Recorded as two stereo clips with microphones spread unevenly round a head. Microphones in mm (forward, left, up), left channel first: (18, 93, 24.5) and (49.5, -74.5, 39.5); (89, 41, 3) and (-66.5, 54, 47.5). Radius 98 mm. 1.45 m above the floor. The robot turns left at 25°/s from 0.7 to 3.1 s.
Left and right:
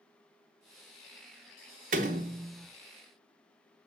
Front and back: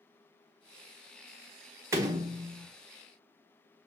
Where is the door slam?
120° right, 0.8 m; by 2.7 s 140° right, 0.8 m.